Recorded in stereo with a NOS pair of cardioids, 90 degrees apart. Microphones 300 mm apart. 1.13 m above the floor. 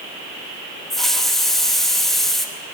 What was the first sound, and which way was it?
A hiss, straight ahead.